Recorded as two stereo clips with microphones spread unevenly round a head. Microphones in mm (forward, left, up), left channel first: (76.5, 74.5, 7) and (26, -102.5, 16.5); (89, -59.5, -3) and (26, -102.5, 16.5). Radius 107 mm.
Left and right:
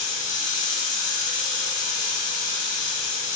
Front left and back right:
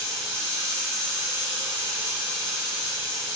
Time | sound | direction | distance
0.0 | running water | 135° left | 5.5 m